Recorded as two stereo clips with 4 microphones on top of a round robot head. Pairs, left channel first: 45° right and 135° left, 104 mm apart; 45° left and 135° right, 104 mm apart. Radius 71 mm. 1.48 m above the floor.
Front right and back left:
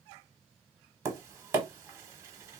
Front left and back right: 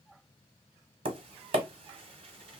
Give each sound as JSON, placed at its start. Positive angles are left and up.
{"t": 1.1, "sound": "tapping", "azimuth_deg": -160, "distance_m": 0.8}